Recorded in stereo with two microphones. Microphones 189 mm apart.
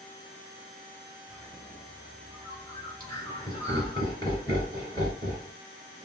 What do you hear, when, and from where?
1.3 s a bird: 15° left (ahead or behind), 1.6 m
3.0 s laughter: 20° left (ahead or behind), 1.7 m